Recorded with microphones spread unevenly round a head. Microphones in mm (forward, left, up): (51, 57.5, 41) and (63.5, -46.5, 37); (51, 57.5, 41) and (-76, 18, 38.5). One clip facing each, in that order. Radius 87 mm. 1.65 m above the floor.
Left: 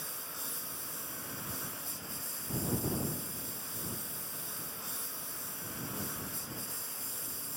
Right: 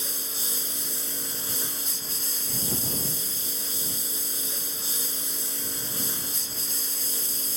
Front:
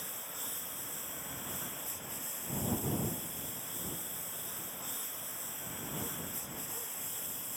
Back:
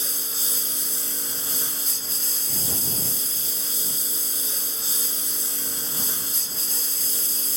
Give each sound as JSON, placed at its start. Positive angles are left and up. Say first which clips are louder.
{"t": 0.0, "sound": "a lawn mower", "louder": "right 6 dB, back 8 dB", "azimuth_deg": -130}